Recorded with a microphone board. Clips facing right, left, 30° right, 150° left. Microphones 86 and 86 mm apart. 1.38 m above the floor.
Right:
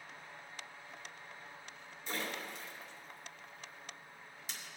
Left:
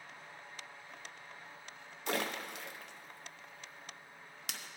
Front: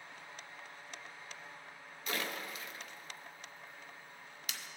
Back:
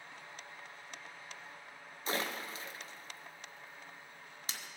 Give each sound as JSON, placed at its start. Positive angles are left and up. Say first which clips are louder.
{"t": 2.1, "sound": "a splash", "louder": "left 4 dB, back 2 dB", "azimuth_deg": 90, "distance_m": 0.6}